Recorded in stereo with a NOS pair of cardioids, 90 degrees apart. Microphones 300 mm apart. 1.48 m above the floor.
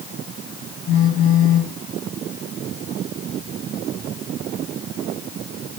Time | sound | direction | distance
0.9 | a phone buzzing | 45° left | 2.5 m